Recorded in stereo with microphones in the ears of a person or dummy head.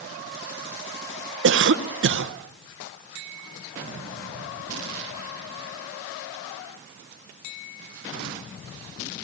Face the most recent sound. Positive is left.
turn(degrees=-60)  # may be behind; listen again after turning